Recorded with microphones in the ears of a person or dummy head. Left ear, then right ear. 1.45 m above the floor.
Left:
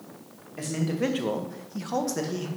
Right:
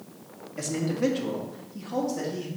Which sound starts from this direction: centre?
A man speaking, at 0.6 s.